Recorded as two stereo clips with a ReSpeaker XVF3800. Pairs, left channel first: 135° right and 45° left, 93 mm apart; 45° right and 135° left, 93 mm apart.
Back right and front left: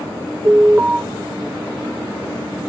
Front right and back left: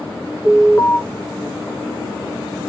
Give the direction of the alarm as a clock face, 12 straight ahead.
12 o'clock.